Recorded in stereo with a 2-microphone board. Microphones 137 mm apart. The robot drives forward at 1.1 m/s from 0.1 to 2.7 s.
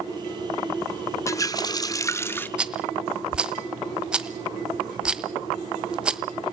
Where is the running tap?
20° left (ahead or behind), 0.7 m; by 2.5 s 15° left (ahead or behind), 1.0 m.